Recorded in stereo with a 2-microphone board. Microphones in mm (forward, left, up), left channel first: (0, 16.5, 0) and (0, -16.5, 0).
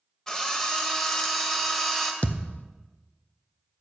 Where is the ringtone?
No ringtone in this recording.